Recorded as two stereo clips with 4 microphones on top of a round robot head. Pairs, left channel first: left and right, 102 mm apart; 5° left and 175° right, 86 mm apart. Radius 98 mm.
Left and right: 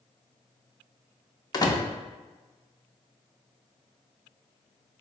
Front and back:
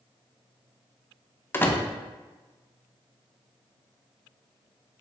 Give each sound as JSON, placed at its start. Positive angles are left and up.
{"t": 1.5, "sound": "a door slam", "azimuth_deg": 60, "distance_m": 0.7}